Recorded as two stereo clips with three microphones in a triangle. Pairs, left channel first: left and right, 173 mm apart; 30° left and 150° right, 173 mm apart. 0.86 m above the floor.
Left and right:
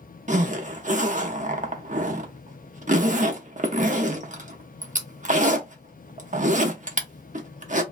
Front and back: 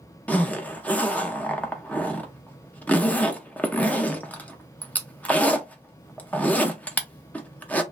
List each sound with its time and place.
0.3 s a zipper: 50° right, 0.6 m